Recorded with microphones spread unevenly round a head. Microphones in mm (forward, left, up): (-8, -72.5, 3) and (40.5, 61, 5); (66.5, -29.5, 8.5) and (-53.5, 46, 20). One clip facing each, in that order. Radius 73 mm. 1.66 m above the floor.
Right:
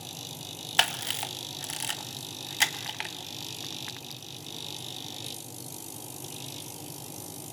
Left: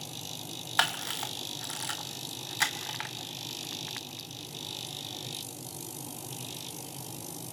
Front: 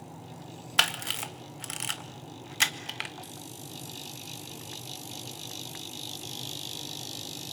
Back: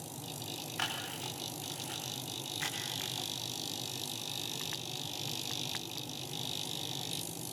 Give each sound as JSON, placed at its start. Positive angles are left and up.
{"t": 0.8, "sound": "a camera shutter", "azimuth_deg": -50, "distance_m": 1.8}